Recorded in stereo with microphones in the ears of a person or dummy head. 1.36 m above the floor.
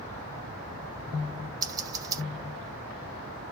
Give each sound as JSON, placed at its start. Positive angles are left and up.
{"t": 1.6, "sound": "scissors", "side_deg": -25, "distance_m": 1.1}